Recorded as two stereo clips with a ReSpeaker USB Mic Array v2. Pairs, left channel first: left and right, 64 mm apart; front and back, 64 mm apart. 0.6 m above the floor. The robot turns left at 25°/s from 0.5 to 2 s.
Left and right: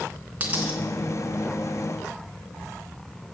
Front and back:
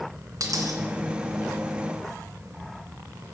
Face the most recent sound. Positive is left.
turn(degrees=165)